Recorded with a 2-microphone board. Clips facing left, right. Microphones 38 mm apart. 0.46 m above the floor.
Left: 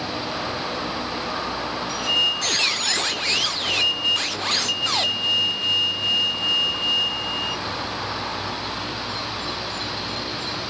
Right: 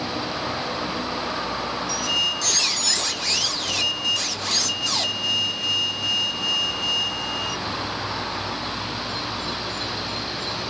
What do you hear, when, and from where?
1.9 s a squeak: 30° left (ahead or behind), 0.6 m